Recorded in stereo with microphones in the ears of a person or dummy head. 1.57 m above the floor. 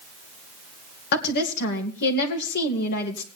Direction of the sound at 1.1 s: 60° left (ahead or behind).